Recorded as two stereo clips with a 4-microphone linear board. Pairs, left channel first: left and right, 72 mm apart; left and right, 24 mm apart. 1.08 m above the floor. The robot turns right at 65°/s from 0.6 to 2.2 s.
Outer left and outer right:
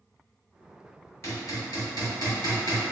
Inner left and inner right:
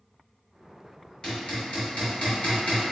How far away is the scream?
No scream in this recording.